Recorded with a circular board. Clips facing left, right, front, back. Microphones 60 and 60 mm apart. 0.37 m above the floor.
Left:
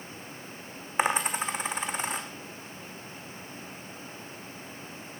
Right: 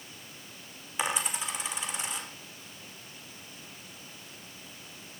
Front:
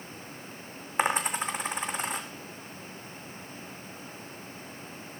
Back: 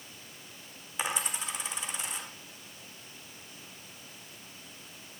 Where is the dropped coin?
45° left, 2.0 m.